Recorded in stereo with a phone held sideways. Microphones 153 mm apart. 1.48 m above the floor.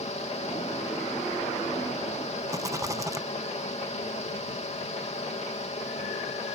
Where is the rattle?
20° right (ahead or behind).